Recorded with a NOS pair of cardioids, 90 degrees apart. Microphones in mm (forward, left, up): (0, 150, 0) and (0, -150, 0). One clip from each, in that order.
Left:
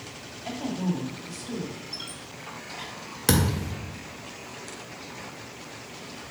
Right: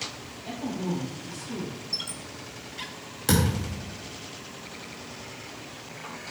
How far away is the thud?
About 1.8 m.